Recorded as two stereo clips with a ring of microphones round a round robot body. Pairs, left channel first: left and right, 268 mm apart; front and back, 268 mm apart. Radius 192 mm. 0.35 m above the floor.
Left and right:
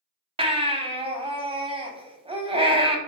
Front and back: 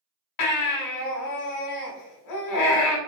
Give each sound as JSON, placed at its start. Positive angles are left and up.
{"t": 0.4, "sound": "a baby crying", "azimuth_deg": -20, "distance_m": 0.9}